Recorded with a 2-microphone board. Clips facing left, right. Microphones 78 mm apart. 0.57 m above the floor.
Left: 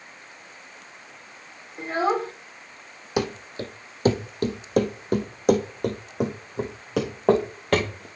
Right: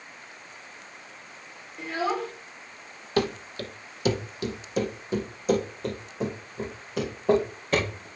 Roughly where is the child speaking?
Left.